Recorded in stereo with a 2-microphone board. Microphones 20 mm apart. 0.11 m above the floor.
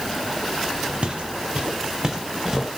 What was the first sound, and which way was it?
Footsteps, 60° right (ahead or behind).